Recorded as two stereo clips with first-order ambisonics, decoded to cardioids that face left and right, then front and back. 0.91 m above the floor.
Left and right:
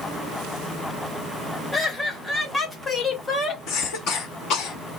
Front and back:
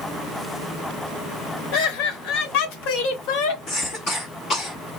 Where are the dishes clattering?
No dishes clattering in this recording.